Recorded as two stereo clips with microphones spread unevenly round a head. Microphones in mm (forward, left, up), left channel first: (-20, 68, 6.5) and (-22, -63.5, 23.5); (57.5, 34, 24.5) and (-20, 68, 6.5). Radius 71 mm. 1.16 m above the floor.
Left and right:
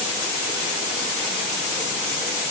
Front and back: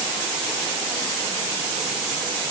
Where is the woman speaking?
I don't hear a woman speaking.